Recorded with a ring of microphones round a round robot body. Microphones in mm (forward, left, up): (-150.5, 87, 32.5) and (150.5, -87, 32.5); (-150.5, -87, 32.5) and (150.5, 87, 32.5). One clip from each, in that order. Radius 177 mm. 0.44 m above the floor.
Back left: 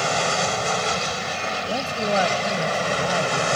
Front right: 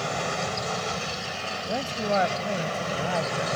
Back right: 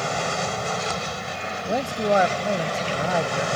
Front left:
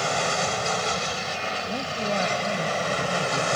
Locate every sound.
0.0 s an aircraft: 100° left
1.6 s a man speaking: 120° right